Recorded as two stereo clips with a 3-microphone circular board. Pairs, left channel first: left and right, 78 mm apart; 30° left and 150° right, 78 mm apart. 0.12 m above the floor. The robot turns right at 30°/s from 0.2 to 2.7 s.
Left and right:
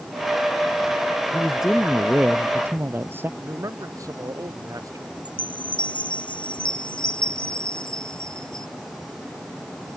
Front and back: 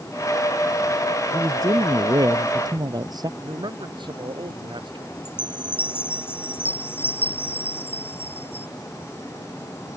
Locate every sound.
1.3 s a man speaking: 170° left; by 3.3 s 145° right
3.4 s a man speaking: 135° right
5.2 s a chime: 95° left